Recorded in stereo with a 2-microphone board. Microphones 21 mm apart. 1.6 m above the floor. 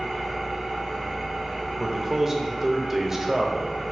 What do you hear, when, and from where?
0.0 s an engine running: 40° right (ahead or behind), 1.7 m
1.8 s a man speaking: 20° right (ahead or behind), 0.6 m